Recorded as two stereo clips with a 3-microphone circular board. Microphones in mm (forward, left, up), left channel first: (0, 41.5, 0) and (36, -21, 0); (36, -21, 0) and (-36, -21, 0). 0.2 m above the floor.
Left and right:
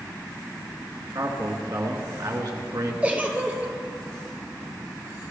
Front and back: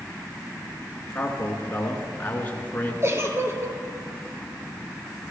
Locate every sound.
1.1 s a man speaking: 60° right, 2.5 m
3.0 s a giggle: 130° right, 1.4 m